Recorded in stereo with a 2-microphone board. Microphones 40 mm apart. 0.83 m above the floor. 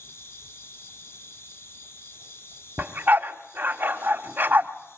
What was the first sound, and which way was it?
An insect, 85° left.